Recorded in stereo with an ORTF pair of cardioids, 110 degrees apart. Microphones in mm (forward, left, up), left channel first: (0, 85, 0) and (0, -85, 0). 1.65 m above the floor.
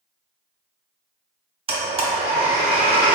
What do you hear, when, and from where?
1.7 s a blender: 35° right, 0.8 m